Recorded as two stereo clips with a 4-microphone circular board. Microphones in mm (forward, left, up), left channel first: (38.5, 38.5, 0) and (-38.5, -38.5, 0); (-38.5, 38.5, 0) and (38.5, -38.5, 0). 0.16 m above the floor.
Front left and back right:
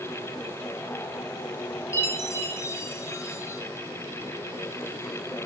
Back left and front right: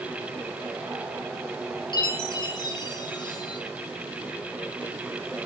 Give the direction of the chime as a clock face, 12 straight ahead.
9 o'clock.